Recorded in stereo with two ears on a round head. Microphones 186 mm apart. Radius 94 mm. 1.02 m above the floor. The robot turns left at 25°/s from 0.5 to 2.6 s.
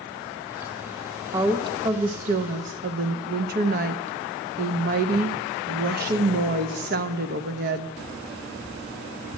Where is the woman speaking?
15° right, 0.6 m; by 7.9 s 45° right, 0.6 m.